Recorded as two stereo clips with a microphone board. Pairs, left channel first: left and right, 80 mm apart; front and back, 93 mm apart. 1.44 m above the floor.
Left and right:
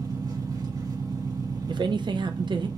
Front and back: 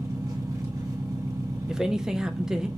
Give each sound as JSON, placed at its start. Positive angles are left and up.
{"t": 0.0, "sound": "an engine running", "azimuth_deg": -130, "distance_m": 1.9}
{"t": 1.7, "sound": "a man speaking", "azimuth_deg": -95, "distance_m": 0.7}